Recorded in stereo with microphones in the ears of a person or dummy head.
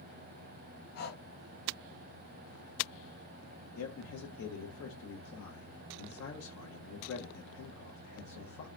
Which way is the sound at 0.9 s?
45° left (ahead or behind).